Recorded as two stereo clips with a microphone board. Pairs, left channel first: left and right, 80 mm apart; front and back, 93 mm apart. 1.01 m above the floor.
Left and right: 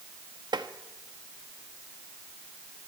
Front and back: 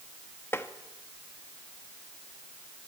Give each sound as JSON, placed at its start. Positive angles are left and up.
{"t": 0.5, "sound": "tapping", "azimuth_deg": -65, "distance_m": 1.1}